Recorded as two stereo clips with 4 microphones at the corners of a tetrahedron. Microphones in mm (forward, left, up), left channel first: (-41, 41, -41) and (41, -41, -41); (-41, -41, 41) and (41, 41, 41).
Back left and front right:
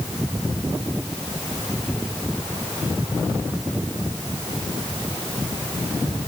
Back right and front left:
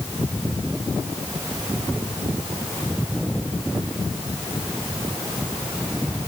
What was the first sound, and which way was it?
Only background noise.